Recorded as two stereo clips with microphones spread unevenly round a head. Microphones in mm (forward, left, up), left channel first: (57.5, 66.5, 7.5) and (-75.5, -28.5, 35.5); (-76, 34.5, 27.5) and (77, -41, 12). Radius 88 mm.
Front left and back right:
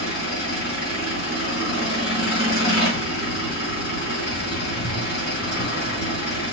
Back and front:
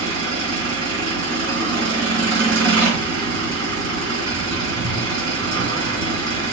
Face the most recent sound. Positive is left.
turn(degrees=0)